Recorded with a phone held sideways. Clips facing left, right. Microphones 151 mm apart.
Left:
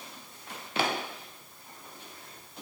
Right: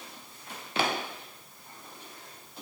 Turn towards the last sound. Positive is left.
No sound to turn to.